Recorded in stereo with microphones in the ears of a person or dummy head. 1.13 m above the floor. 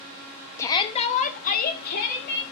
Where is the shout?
10° left (ahead or behind), 0.8 m; by 2.4 s 50° left (ahead or behind), 1.8 m.